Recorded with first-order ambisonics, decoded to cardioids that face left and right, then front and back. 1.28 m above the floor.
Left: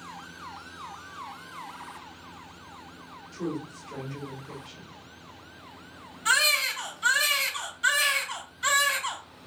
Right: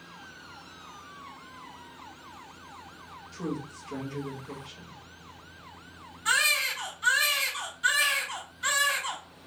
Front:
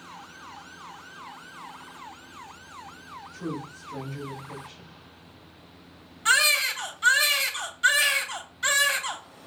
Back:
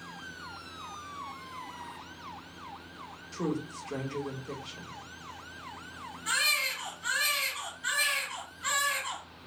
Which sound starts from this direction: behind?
A woman speaking, at 3.3 s.